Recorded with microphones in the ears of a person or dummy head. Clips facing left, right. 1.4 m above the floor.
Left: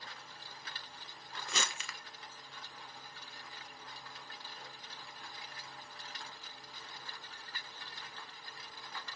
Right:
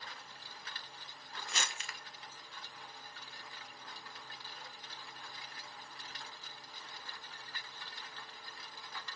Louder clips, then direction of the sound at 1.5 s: Left 3 dB; 70° left (ahead or behind).